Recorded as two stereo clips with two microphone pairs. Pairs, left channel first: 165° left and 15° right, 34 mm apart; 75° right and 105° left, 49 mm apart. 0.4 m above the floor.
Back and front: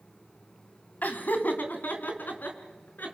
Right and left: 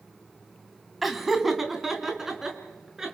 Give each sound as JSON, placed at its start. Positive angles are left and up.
{"t": 1.0, "sound": "laughter", "azimuth_deg": -170, "distance_m": 2.5}